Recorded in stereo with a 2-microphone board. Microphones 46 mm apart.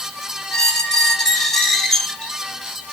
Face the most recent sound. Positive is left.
turn(degrees=10)  # may be behind; listen again after turning